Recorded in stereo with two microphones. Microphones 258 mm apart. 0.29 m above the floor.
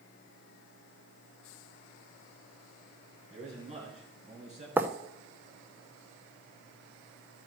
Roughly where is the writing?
Centre.